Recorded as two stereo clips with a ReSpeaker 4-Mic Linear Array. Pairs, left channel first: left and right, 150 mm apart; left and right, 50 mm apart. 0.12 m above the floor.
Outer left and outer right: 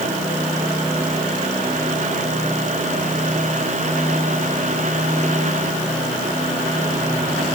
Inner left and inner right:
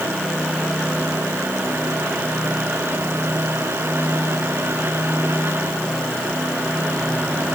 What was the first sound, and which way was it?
Only background noise.